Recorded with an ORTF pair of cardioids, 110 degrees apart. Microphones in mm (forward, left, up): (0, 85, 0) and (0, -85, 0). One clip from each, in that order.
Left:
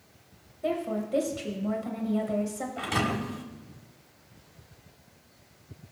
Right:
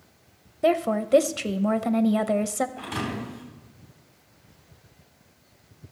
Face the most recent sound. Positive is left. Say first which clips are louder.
# left 3 dB
turn(degrees=35)